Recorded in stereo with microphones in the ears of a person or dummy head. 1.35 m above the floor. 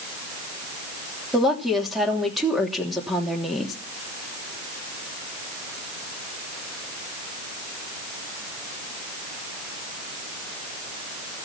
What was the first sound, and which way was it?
A woman speaking, 5° left (ahead or behind).